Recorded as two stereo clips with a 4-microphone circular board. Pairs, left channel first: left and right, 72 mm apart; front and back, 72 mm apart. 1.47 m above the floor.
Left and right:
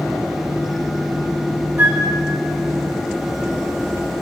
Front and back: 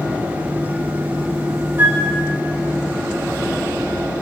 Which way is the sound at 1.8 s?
140° right.